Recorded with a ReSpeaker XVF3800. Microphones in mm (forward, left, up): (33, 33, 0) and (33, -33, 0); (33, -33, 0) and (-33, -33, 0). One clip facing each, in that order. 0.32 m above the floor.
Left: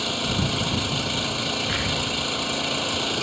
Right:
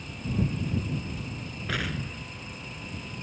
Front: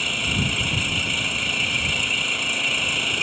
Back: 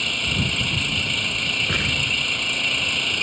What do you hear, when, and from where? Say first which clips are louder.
0.0 s an engine running: left 5 dB, even; 85° left
1.7 s an explosion: left 6 dB, back 1 dB; straight behind